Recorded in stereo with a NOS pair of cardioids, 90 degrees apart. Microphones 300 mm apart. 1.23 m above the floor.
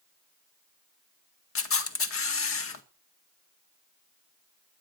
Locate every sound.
1.6 s a camera shutter: 45° left, 1.9 m